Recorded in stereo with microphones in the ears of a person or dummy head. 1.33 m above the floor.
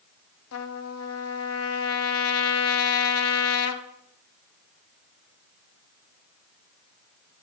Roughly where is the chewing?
No chewing in this recording.